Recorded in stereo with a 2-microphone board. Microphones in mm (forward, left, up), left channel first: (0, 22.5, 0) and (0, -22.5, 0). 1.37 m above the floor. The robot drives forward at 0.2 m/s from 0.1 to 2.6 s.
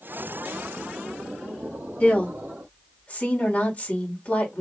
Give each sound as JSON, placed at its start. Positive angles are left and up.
{"t": 2.0, "sound": "a woman speaking", "side_deg": 25, "distance_m": 1.7}